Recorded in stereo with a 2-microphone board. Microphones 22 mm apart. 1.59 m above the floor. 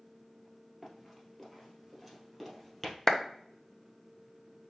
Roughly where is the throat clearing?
I don't hear throat clearing.